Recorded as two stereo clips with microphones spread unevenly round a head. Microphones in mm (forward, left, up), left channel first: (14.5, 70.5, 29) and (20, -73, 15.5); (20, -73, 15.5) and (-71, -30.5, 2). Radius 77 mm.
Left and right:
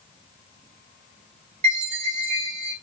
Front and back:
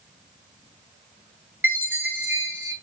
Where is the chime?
140° right, 3.5 m.